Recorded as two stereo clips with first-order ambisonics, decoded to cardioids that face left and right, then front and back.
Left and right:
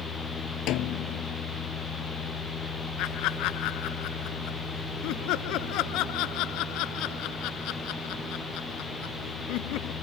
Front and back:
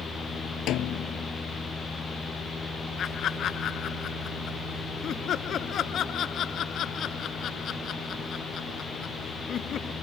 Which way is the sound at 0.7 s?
50° left.